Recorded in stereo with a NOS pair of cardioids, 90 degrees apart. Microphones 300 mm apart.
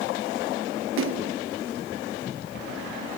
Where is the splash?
45° right.